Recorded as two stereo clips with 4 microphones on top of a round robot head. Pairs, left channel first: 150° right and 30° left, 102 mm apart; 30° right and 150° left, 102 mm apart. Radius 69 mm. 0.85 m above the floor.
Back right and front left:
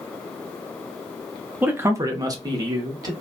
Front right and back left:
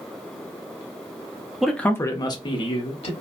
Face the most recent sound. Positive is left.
turn(degrees=-20)